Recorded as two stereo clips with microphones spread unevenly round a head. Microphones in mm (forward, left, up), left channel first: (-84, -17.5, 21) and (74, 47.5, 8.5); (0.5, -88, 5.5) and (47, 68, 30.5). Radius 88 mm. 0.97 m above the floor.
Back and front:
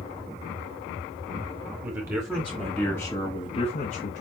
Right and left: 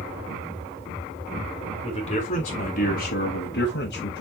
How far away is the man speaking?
About 2.5 m.